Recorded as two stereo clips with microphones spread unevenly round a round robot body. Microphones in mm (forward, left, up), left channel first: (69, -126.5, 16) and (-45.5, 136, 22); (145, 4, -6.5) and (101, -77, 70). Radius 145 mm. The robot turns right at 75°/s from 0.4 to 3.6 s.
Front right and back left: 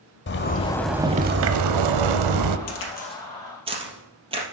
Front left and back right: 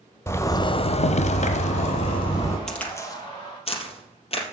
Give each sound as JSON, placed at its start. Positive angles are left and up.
{"t": 0.3, "sound": "a zipper", "azimuth_deg": -10, "distance_m": 0.6}
{"t": 2.7, "sound": "a crack", "azimuth_deg": -30, "distance_m": 3.0}